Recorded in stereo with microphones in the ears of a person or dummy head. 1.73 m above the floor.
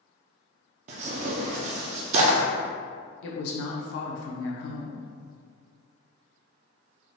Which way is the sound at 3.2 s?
70° left (ahead or behind).